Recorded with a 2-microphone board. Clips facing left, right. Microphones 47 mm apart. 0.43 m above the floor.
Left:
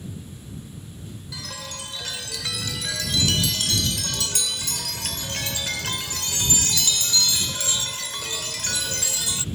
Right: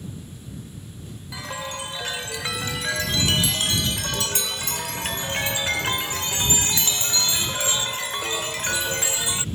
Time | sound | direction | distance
1.3 | a chime | 25° right (ahead or behind) | ?